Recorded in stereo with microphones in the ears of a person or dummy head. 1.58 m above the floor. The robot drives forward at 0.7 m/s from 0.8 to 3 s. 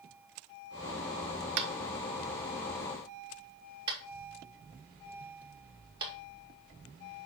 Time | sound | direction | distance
1.6 | tapping | 55° right (ahead or behind) | 0.7 m